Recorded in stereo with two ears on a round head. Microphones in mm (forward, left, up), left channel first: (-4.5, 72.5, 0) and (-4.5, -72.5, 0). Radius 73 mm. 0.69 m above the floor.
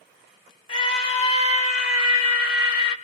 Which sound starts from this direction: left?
A scream, at 0.7 s.